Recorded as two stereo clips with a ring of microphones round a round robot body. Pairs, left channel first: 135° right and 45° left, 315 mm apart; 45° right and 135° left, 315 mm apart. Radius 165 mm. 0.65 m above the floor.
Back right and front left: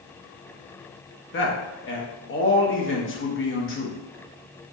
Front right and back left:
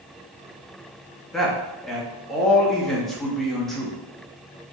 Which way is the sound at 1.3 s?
135° right.